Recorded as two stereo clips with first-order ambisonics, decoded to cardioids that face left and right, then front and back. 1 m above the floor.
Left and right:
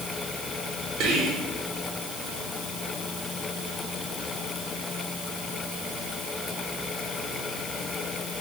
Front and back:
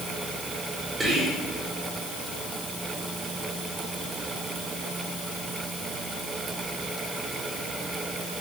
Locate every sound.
1.0 s whispering: 100° right, 0.8 m